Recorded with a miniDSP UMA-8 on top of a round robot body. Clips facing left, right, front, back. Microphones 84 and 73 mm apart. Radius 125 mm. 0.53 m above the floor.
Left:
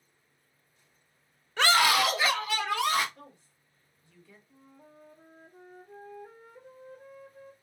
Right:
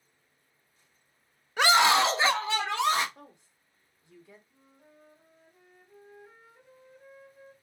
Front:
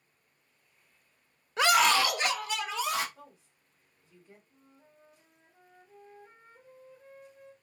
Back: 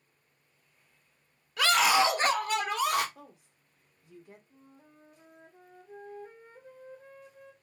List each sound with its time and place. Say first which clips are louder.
1.6 s a scream: right 2 dB, even; 25° right, 0.8 m; by 3.0 s 155° right, 1.9 m
3.1 s a woman speaking: even, back 1 dB; 160° right, 1.6 m
4.5 s a flute: left 5 dB, back 4 dB; 135° left, 0.7 m